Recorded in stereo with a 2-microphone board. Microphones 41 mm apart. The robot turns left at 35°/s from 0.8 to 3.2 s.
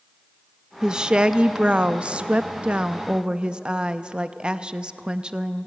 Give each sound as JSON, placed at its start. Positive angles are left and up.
{"t": 0.8, "sound": "a woman speaking", "side_deg": -20, "distance_m": 0.6}